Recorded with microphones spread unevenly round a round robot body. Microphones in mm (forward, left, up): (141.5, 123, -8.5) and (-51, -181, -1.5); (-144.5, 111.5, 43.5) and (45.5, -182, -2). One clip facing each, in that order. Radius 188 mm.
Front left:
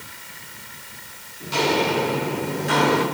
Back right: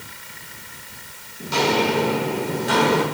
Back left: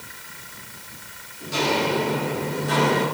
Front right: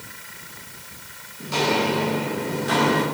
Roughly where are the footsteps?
Right.